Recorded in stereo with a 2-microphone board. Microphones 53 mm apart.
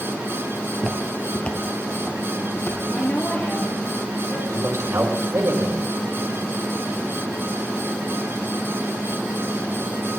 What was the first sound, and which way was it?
Footsteps, 20° right (ahead or behind).